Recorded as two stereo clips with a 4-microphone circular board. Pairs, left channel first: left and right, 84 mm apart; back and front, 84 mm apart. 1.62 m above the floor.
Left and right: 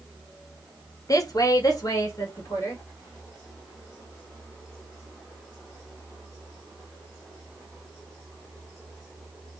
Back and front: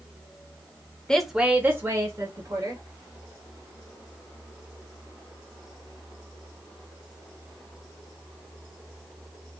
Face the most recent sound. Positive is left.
turn(degrees=40)